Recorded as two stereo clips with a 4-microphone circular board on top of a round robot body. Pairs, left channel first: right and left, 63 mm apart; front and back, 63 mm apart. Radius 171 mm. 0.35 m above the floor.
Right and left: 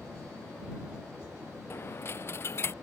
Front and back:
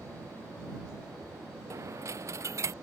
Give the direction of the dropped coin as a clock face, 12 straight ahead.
5 o'clock.